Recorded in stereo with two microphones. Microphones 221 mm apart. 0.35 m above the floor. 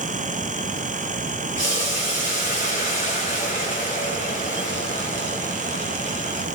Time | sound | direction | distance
1.6 | boiling | 40° left (ahead or behind) | 6 m